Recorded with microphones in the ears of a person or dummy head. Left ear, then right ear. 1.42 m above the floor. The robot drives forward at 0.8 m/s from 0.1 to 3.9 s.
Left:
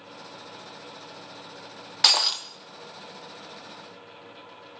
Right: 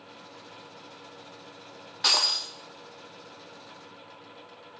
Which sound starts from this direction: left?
Breaking glass, at 2.0 s.